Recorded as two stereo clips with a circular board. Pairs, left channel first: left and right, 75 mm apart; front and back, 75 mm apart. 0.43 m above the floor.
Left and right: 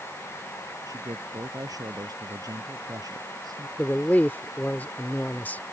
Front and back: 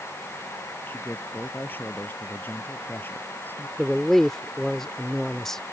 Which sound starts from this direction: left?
A man speaking, at 3.8 s.